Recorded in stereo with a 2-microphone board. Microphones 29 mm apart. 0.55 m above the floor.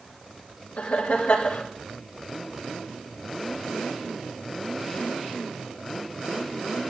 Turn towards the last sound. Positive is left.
turn(degrees=70)  # may be behind; listen again after turning